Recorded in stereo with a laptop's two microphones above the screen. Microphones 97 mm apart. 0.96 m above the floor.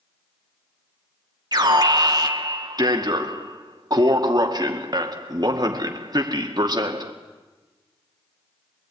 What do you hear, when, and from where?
1.5 s an alarm: 45° right (ahead or behind), 2 m